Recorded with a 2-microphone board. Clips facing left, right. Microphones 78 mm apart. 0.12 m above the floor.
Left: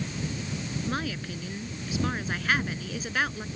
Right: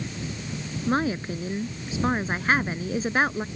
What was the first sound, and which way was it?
A woman speaking, 35° right (ahead or behind).